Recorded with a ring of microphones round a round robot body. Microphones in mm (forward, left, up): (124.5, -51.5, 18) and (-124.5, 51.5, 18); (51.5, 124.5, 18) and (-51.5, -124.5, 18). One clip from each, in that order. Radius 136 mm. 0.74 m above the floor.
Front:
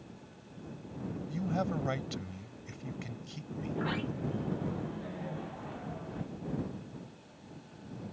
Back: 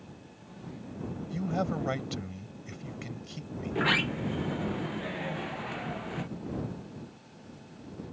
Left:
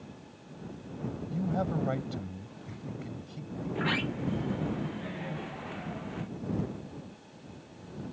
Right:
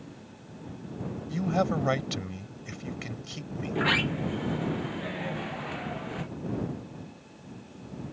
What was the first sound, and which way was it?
A man speaking, 115° right.